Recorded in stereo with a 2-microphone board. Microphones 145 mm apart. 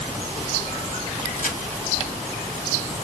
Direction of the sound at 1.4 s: 75° left (ahead or behind).